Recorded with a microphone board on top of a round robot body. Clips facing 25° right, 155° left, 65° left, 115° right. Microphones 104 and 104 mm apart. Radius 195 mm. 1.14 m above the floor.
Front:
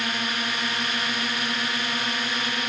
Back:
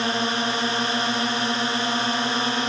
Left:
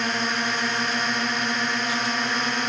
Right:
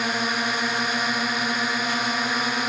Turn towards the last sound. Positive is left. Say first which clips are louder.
# back 5 dB, right 1 dB
turn(degrees=165)